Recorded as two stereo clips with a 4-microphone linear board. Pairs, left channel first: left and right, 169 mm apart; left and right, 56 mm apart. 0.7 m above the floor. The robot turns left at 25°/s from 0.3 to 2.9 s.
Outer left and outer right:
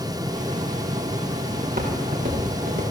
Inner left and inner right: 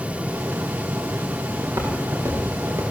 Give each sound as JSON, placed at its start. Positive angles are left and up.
{"t": 1.6, "sound": "footsteps", "side_deg": -55, "distance_m": 6.0}